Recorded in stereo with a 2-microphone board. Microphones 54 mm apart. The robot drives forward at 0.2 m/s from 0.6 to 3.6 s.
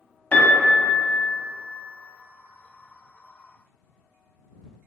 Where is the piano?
30° left (ahead or behind), 0.6 m.